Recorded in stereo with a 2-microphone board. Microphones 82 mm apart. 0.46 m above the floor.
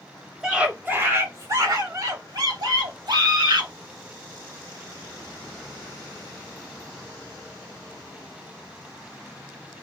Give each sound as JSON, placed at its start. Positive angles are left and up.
{"t": 0.4, "sound": "a scream", "side_deg": -5, "distance_m": 0.8}